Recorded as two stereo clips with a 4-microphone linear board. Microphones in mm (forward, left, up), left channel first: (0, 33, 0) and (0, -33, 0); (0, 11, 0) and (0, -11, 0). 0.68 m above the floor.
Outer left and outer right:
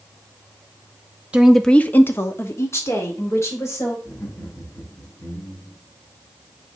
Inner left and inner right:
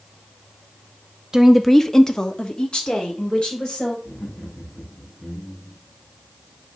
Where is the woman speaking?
20° right (ahead or behind), 0.6 m; by 4.0 s 50° left (ahead or behind), 3 m.